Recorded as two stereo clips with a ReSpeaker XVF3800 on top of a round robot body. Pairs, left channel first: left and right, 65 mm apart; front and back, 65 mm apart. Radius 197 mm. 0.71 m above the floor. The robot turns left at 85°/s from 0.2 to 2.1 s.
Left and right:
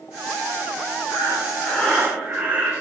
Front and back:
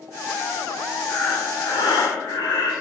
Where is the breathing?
70° left, 1.1 m; by 2.8 s 20° right, 1.1 m.